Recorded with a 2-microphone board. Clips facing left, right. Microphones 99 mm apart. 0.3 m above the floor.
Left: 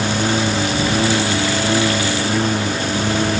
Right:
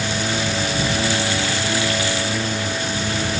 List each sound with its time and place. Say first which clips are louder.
0.0 s a lawn mower: left 5 dB; 55° left (ahead or behind); by 3.4 s 60° left (ahead or behind)